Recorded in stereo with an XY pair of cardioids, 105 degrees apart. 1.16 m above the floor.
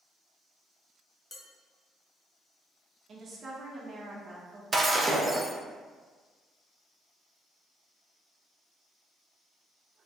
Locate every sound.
1.3 s dishes clattering: 25° left, 1.0 m
3.1 s a woman speaking: 45° right, 1.3 m
4.7 s breaking glass: 30° right, 0.8 m